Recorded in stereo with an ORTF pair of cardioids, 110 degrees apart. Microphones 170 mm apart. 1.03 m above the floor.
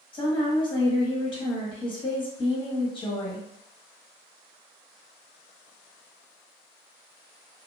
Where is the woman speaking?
30° left, 1.3 m.